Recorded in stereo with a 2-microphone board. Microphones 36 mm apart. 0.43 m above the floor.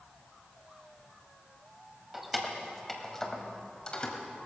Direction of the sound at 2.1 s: 5° right (ahead or behind).